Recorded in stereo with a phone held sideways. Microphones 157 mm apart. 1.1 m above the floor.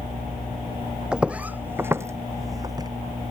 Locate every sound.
1.1 s footsteps: 5° right (ahead or behind); by 2.9 s 25° right (ahead or behind)